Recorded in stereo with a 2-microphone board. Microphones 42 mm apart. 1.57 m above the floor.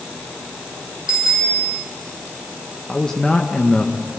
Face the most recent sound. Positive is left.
turn(degrees=15)  # may be behind; listen again after turning